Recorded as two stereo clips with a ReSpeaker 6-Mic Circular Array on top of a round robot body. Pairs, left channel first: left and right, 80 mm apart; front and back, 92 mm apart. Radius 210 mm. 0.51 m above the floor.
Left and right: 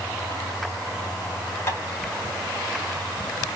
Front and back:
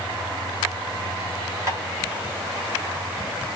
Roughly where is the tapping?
Behind left.